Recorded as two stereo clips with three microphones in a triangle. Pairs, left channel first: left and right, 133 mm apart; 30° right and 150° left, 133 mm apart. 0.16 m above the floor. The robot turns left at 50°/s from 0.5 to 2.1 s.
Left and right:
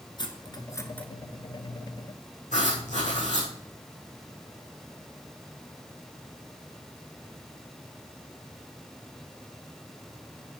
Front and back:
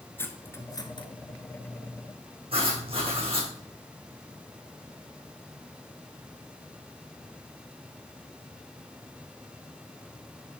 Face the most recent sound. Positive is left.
turn(degrees=105)